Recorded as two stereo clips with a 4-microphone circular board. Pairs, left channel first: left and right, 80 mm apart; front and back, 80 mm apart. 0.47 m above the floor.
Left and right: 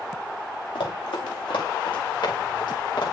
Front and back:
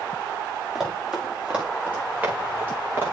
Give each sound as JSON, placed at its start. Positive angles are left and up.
{"t": 0.8, "sound": "running footsteps", "azimuth_deg": 95, "distance_m": 6.0}